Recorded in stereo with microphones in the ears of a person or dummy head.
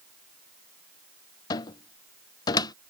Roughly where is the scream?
I don't hear a scream.